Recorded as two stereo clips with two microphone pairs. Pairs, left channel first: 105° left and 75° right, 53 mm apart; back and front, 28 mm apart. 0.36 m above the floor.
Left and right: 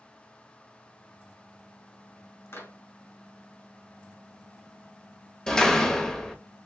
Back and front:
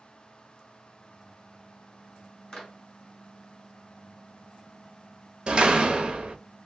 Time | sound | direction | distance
2.5 | a clap | 120° left | 2 m
5.5 | a door slam | 35° left | 0.8 m